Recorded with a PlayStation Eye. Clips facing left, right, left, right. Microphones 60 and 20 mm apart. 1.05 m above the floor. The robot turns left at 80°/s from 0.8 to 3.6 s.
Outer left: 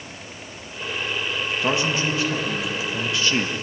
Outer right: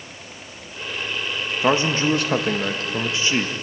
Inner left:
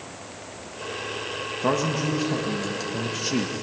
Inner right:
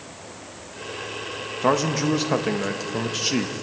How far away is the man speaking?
About 1.4 m.